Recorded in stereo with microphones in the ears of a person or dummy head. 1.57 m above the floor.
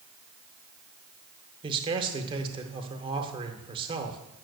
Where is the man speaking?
25° right (ahead or behind), 0.9 m.